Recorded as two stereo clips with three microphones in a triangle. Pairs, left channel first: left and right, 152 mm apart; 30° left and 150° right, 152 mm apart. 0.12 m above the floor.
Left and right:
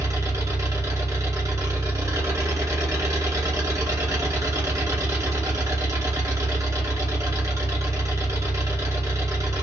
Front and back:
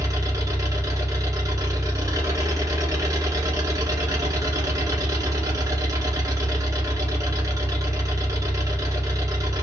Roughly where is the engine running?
Behind right.